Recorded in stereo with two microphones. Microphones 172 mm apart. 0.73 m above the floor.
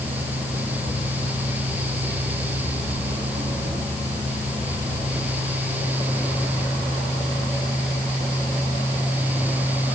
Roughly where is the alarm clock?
I don't hear an alarm clock.